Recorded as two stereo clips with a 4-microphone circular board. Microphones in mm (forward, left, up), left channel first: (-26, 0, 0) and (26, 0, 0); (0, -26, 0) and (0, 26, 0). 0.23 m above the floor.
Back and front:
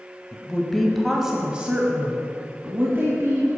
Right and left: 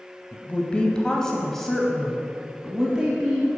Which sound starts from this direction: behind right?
A woman speaking, at 0.3 s.